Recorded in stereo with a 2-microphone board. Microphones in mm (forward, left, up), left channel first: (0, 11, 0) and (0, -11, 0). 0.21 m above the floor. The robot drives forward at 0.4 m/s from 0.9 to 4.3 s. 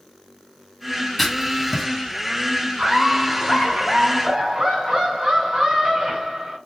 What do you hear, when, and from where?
1.2 s writing: centre (ahead or behind), 1.4 m
2.8 s laughter: 45° right (ahead or behind), 2.5 m; by 6.6 s 50° right (ahead or behind), 2.5 m